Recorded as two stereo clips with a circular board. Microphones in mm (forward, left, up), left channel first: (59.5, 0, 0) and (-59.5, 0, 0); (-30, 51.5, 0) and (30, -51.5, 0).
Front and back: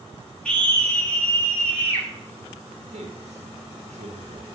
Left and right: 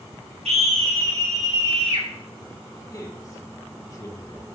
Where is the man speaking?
175° left, 1.2 m.